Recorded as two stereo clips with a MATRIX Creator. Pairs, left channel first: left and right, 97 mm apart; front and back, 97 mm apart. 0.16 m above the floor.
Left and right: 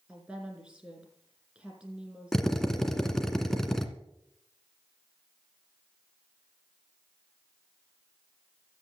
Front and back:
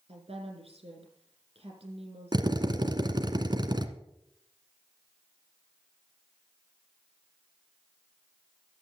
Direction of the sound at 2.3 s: 175° left.